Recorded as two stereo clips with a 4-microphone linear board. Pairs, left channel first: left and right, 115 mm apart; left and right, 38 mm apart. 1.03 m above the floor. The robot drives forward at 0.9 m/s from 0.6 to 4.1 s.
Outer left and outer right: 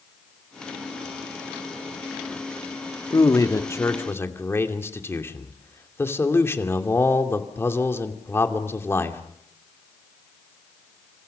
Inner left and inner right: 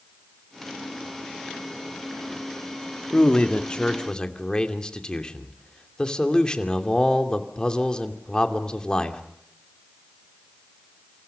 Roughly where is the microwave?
No microwave in this recording.